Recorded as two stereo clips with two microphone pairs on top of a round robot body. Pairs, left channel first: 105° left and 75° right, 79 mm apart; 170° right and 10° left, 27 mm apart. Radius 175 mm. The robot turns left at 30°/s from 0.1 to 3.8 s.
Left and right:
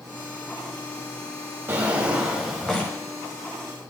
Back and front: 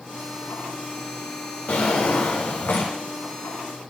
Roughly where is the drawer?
Behind right.